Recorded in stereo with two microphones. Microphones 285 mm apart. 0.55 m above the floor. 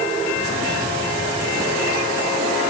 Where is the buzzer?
I don't hear a buzzer.